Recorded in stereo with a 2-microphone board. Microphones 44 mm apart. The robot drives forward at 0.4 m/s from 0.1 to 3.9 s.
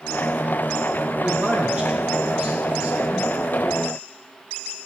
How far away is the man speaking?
About 7.5 m.